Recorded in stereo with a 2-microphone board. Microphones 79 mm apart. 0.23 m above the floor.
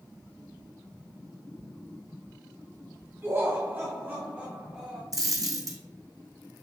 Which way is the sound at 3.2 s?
30° right (ahead or behind).